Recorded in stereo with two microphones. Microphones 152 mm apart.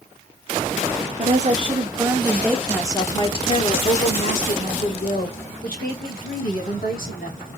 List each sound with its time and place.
1.2 s a woman speaking: 45° right (ahead or behind), 1.1 m; by 7.5 s 75° left (ahead or behind), 3 m